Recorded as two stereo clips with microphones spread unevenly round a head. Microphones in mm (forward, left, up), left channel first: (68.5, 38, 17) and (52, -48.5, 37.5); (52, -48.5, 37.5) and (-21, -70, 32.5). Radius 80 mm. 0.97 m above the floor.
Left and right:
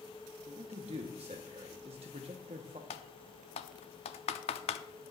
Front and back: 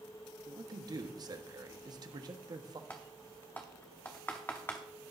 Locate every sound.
0.5 s a man speaking: 135° right, 1.4 m
2.9 s typing on a keyboard: 90° left, 0.6 m